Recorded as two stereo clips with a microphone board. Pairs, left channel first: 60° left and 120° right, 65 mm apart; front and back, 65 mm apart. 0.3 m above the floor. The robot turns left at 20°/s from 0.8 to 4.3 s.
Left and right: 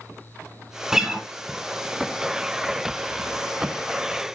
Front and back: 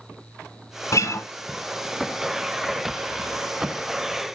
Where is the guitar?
35° right, 1.7 m; by 1.3 s 45° right, 1.7 m.